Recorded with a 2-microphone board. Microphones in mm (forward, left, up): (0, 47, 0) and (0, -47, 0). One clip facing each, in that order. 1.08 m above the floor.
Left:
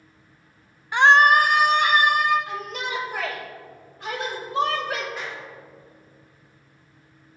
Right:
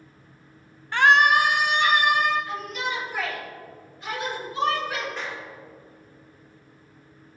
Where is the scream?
10° left (ahead or behind), 0.6 m; by 2.4 s 55° left (ahead or behind), 2.5 m.